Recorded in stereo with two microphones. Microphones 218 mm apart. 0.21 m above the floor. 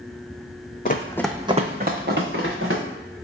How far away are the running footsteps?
About 0.5 m.